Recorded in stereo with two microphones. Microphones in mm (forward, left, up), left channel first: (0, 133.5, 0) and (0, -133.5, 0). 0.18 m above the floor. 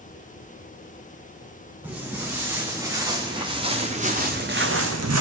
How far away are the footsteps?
About 3.5 m.